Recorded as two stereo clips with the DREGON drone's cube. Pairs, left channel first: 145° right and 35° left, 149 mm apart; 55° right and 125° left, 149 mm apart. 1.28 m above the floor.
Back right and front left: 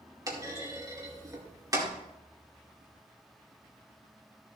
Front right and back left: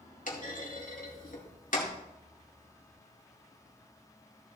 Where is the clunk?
30° right, 2 m.